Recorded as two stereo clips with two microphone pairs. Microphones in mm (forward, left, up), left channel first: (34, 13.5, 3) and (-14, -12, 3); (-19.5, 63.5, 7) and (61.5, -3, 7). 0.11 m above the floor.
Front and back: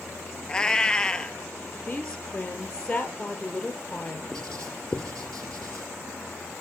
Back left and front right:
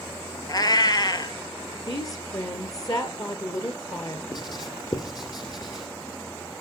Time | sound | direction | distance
0.5 | a cat meowing | 100° left | 0.7 m
1.8 | a woman speaking | 95° left | 2 m
4.3 | writing | 105° left | 2 m